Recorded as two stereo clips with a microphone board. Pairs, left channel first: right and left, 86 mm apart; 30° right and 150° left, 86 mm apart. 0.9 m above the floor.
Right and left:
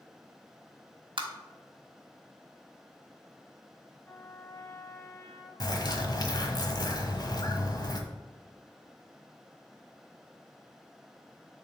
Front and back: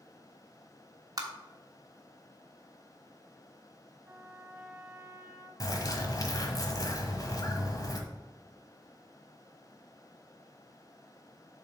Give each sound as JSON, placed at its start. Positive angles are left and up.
{"t": 1.2, "sound": "tapping", "azimuth_deg": 105, "distance_m": 1.2}
{"t": 4.0, "sound": "a trumpet", "azimuth_deg": -145, "distance_m": 1.9}
{"t": 5.6, "sound": "a bird", "azimuth_deg": -65, "distance_m": 1.2}